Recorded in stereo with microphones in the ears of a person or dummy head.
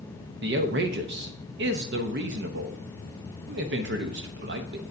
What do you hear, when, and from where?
0.4 s a man speaking: 50° right (ahead or behind), 0.7 m